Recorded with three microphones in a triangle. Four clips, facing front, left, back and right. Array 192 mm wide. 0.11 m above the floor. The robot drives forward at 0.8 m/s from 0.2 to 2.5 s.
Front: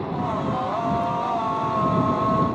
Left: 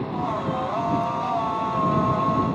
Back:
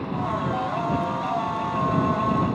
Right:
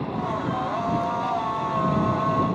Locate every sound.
Only background noise.